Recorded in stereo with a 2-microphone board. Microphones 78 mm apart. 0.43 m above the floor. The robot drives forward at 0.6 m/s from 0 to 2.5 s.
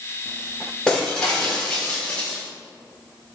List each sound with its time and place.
0.9 s breaking glass: 10° left (ahead or behind), 5.5 m